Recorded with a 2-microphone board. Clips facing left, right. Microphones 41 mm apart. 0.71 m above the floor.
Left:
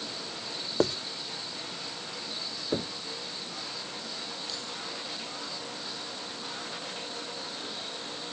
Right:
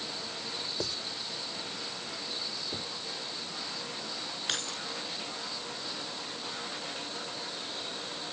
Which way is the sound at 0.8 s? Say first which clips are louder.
Left 12 dB; 45° left (ahead or behind).